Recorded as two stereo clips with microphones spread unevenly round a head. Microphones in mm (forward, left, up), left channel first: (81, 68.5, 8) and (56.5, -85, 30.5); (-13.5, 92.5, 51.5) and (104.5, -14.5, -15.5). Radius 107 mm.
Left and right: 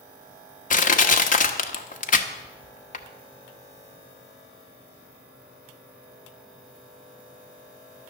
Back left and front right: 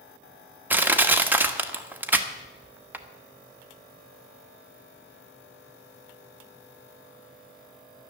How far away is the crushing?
About 1.2 m.